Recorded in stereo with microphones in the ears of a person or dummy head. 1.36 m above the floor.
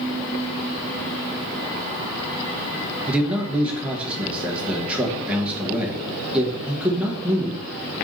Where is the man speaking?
10° right (ahead or behind), 1.2 m.